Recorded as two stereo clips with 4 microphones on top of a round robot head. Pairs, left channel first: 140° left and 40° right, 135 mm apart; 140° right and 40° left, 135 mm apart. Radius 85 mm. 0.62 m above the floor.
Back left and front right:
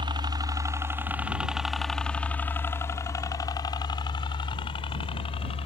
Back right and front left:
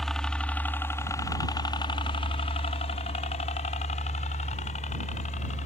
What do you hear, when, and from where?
0.0 s a helicopter: 55° right; by 5.7 s 175° right